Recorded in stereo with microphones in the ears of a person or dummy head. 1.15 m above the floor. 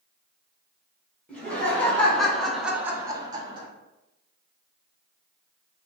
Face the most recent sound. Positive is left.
turn(degrees=-30)  # may be behind; listen again after turning